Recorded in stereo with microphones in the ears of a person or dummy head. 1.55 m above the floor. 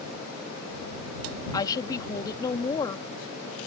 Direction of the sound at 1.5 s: 25° left (ahead or behind).